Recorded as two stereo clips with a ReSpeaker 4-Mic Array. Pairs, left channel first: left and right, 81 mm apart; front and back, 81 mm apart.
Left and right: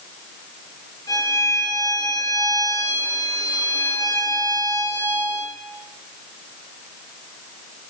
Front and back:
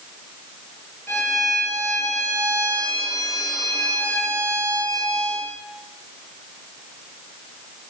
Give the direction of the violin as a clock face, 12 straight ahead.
10 o'clock.